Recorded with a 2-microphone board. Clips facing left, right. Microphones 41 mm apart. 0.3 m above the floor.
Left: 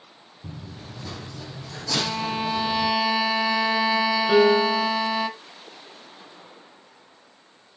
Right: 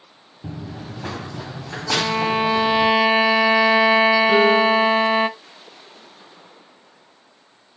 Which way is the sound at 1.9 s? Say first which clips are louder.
Right 6 dB; 35° right (ahead or behind).